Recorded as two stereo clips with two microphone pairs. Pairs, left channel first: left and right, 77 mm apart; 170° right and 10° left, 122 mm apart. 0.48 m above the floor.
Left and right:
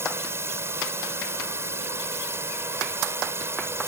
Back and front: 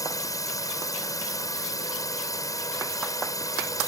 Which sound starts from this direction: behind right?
A drone, at 0.0 s.